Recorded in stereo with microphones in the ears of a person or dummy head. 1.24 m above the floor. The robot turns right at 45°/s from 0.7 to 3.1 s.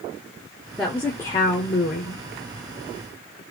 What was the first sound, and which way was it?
A woman speaking, 5° left.